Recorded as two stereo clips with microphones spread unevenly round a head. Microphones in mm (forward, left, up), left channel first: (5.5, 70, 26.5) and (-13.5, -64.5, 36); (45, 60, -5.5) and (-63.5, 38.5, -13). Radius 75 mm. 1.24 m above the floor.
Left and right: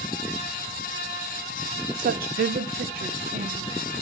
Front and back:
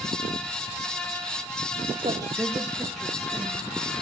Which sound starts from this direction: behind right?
A woman speaking, at 2.0 s.